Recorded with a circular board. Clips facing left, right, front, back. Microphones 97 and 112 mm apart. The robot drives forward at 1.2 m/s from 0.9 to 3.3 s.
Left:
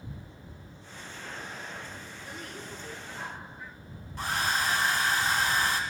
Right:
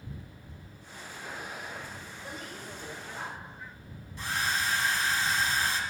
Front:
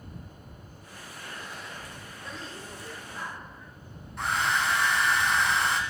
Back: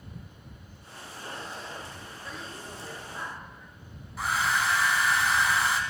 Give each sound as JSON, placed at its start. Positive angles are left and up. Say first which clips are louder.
{"t": 2.2, "sound": "a woman speaking", "louder": "even, even", "azimuth_deg": -90, "distance_m": 2.5}
{"t": 4.2, "sound": "a hair dryer", "louder": "left 2 dB, even", "azimuth_deg": 95, "distance_m": 0.8}